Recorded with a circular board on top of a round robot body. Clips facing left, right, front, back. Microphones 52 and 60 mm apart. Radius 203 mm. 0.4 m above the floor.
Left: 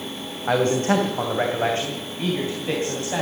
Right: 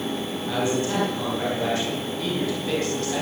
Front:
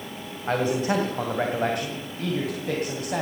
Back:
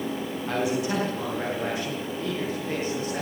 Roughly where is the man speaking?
Ahead left.